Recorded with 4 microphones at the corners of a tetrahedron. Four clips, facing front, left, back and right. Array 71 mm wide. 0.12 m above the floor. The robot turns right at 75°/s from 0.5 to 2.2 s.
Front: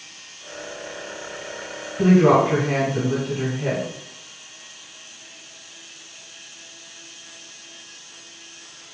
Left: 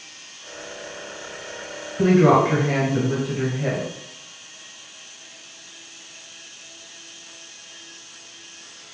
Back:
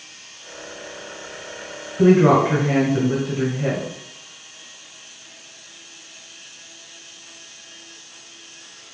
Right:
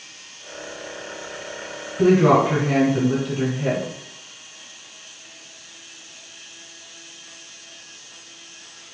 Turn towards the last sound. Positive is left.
turn(degrees=150)